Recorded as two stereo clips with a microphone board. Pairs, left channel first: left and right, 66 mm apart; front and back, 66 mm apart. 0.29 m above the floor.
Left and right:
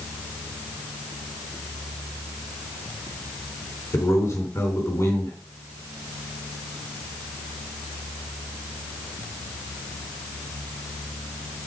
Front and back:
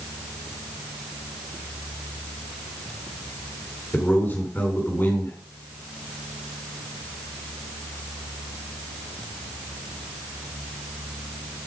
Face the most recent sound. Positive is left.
turn(degrees=55)